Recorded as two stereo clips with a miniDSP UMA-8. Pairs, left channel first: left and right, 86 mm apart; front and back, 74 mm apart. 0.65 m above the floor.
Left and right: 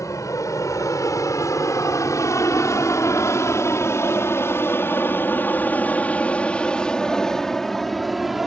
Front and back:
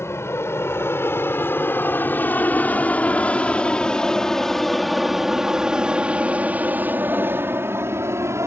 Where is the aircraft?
45° left; by 8.5 s 175° right.